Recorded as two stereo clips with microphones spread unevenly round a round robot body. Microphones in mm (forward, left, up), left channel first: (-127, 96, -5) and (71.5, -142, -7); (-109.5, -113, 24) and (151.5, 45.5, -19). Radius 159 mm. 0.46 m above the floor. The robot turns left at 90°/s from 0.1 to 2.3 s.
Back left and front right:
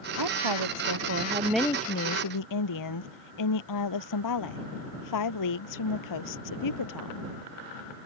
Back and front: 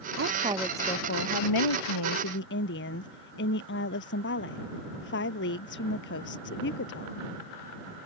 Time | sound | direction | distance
0.2 | a woman speaking | 15° right | ?